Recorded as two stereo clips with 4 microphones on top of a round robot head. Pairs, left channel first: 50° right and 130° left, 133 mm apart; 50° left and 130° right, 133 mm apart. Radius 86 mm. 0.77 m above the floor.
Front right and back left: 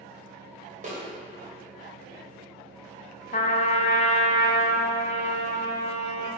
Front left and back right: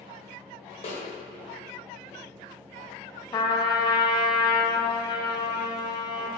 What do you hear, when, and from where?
0.8 s a snare drum: 95° left, 2.5 m
3.3 s a trumpet: 10° right, 0.8 m